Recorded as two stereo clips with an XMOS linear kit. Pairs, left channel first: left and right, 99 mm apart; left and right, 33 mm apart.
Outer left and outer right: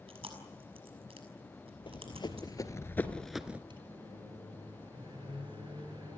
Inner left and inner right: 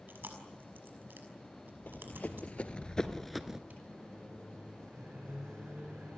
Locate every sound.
0.1 s chewing: 70° right (ahead or behind), 6 m
1.9 s running footsteps: 55° left (ahead or behind), 2.5 m; by 3.6 s 15° right (ahead or behind), 1.4 m
3.7 s a microwave: 50° right (ahead or behind), 9 m